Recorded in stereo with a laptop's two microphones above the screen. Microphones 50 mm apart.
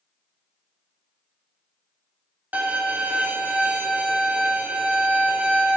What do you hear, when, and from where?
2.5 s a violin: 35° right (ahead or behind), 1.1 m